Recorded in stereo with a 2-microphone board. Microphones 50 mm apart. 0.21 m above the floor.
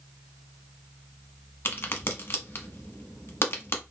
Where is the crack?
55° left (ahead or behind), 0.8 m.